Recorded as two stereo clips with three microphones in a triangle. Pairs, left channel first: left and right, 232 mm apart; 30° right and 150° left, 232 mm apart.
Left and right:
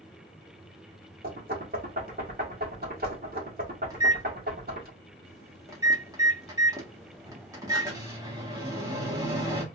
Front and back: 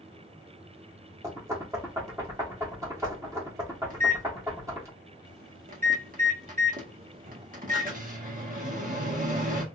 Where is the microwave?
165° right, 1.5 m.